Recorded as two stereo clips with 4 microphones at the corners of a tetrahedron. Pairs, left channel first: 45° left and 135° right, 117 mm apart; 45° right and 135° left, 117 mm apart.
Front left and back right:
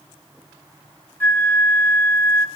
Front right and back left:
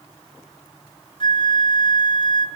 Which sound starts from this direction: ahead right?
A flute, at 1.2 s.